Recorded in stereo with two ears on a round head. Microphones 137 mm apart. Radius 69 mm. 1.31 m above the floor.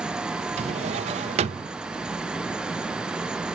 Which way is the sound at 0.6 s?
45° right (ahead or behind).